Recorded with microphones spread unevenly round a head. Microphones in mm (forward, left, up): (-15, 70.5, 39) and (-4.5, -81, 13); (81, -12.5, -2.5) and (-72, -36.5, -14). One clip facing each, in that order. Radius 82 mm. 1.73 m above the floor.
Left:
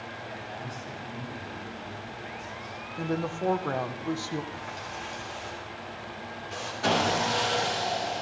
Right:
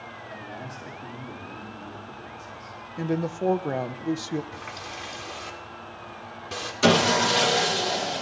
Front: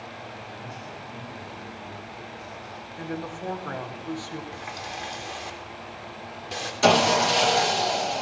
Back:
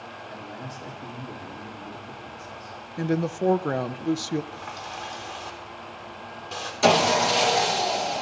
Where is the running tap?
65° right, 3 m.